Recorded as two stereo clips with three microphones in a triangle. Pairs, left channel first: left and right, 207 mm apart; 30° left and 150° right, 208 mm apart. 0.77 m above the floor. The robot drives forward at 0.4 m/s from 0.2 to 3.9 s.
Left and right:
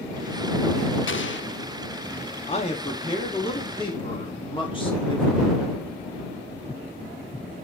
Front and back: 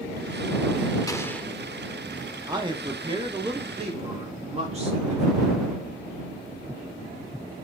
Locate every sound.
1.1 s an explosion: 100° left, 0.6 m; by 1.5 s 115° left, 0.7 m
2.5 s a man speaking: 145° left, 1.6 m; by 5.4 s 155° left, 2 m